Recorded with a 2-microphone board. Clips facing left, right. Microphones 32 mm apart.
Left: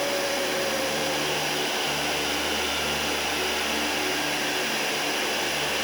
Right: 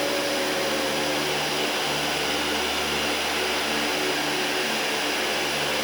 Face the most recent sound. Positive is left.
No sound to turn to.